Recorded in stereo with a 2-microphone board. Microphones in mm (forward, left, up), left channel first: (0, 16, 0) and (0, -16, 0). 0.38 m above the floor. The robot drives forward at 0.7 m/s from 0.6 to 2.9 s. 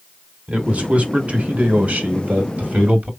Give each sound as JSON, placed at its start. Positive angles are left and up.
{"t": 0.5, "sound": "a man speaking", "side_deg": -45, "distance_m": 2.5}